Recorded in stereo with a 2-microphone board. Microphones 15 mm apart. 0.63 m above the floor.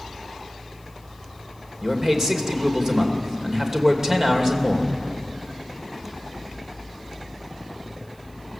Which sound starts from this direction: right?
A man speaking, at 1.8 s.